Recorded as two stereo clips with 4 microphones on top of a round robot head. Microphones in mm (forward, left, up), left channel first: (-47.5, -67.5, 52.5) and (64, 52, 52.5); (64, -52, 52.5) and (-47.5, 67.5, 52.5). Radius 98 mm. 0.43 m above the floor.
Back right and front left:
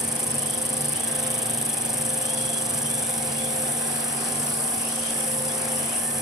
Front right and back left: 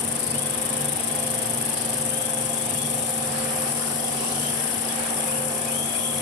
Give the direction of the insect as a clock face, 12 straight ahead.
1 o'clock.